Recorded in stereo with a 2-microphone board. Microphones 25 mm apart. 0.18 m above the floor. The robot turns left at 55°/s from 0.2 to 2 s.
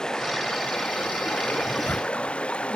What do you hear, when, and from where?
0.0 s running water: 150° left; by 2.8 s 50° left
1.6 s a zipper: 85° left; by 2.3 s 70° left (ahead or behind)